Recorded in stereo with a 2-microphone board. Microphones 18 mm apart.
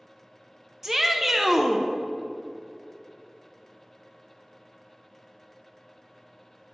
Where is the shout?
20° right (ahead or behind), 0.5 m.